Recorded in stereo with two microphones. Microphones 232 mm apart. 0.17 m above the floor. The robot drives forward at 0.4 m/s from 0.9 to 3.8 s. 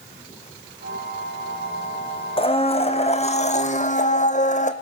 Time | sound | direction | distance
2.4 | a blender | 25° left (ahead or behind) | 2 m